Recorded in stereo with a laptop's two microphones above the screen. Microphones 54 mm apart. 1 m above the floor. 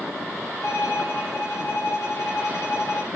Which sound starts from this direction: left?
A violin, at 0.6 s.